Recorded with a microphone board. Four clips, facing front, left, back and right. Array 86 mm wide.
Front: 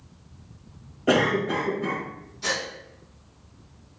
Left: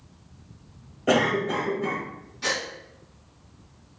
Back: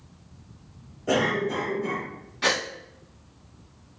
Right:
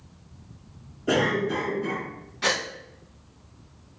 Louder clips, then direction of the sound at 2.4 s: Right 3 dB, back 4 dB; 150° right.